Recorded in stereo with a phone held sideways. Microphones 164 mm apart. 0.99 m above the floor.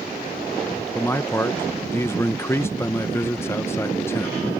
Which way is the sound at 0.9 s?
15° left (ahead or behind).